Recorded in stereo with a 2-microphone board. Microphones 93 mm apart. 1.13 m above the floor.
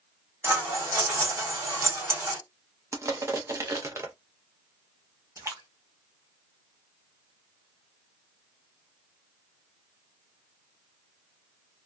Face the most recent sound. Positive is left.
turn(degrees=-30)  # may be behind; listen again after turning